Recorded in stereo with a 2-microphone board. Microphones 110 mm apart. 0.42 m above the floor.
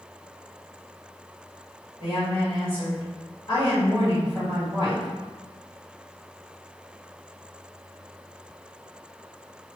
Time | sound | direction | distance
2.0 | a woman speaking | 45° left (ahead or behind) | 1.8 m